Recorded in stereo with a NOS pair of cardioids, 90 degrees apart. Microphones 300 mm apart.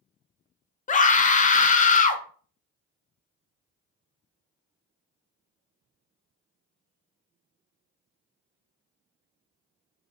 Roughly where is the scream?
Ahead left.